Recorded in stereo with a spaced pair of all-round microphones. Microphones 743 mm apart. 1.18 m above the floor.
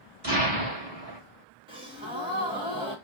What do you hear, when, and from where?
0.2 s an explosion: 30° right (ahead or behind), 1.2 m
1.7 s a gasp: 5° right (ahead or behind), 0.9 m